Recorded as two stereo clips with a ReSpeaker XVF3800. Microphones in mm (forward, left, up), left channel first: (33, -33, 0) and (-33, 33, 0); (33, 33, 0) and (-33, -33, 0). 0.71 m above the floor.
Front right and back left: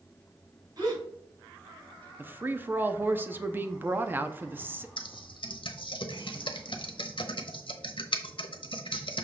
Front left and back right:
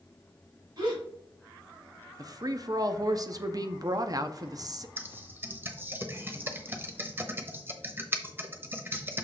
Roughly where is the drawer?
No drawer in this recording.